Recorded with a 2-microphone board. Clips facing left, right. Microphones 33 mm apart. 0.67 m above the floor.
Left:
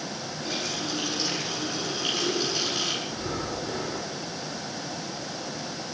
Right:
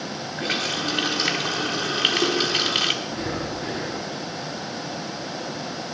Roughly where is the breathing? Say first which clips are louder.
Right 3 dB; right.